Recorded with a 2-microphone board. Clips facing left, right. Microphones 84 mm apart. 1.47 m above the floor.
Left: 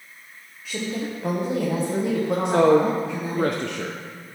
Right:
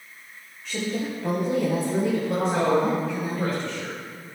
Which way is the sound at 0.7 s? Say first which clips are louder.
Even; 5° left (ahead or behind).